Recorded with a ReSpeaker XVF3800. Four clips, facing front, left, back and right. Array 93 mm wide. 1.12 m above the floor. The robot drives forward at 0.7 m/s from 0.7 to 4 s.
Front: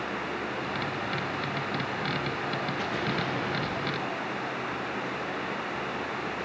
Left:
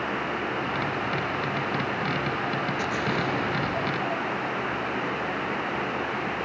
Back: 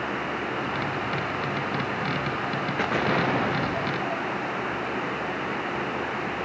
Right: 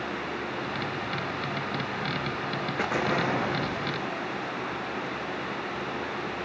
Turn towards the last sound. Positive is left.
turn(degrees=-165)